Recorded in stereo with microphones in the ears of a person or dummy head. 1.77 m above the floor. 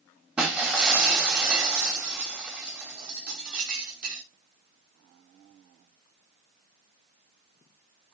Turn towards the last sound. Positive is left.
turn(degrees=-5)  # may be behind; listen again after turning